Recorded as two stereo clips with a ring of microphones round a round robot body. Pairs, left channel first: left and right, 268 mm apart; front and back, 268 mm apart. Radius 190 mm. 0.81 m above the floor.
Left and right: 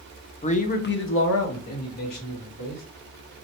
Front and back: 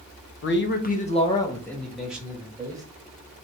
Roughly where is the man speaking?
Ahead left.